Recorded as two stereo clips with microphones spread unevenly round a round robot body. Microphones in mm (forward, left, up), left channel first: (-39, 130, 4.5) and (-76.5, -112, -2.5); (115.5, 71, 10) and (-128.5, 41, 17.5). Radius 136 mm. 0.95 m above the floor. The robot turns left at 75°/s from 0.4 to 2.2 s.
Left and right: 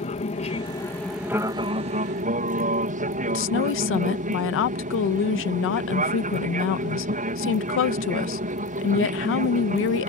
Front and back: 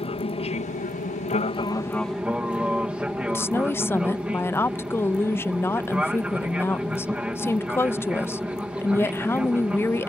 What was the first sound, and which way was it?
An aircraft, 45° left.